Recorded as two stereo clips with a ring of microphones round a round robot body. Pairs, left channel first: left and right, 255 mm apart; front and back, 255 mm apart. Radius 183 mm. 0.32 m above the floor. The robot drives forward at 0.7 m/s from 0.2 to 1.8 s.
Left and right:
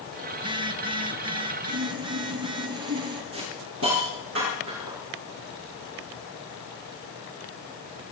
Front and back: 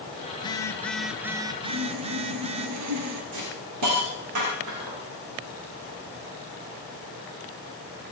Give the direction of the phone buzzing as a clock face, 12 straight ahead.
1 o'clock.